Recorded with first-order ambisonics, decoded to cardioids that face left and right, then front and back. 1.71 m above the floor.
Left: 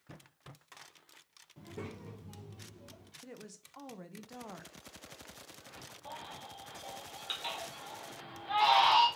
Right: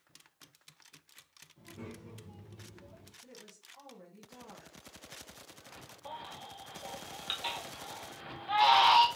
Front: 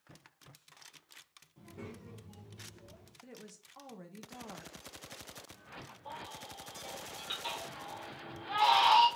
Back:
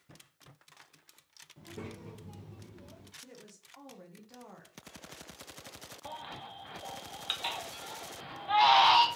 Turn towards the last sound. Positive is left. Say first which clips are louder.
# right 2 dB, back 3 dB
turn(degrees=-160)